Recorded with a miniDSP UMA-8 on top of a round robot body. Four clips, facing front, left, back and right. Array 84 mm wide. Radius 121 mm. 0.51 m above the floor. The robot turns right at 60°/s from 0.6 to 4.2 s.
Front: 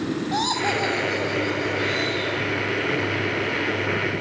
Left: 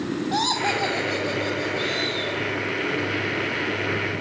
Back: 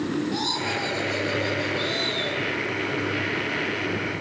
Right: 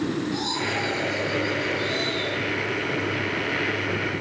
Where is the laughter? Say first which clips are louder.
Left 4 dB, front 4 dB; 60° left, 3 m; by 2.4 s 170° left, 3 m.